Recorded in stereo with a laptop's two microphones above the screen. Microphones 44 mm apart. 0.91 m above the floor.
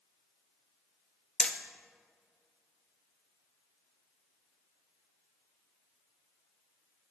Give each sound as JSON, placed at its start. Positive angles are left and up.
{"t": 1.4, "sound": "hammering", "side_deg": 25, "distance_m": 0.7}